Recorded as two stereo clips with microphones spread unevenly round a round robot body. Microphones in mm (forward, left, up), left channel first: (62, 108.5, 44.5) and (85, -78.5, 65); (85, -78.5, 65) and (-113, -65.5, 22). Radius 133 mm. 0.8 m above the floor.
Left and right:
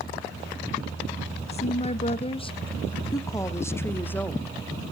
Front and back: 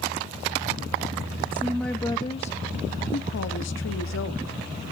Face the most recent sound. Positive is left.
turn(degrees=15)